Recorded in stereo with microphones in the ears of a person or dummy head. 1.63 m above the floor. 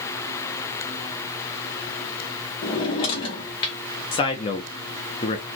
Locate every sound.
2.6 s a drawer: 25° left (ahead or behind), 1.0 m
4.1 s a man speaking: 25° left (ahead or behind), 0.7 m